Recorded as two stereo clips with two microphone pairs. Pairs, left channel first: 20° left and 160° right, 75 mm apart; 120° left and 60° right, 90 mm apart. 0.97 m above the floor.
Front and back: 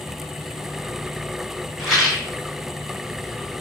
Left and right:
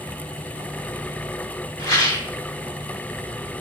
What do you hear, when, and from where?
1.8 s a rattle: 110° left, 1.9 m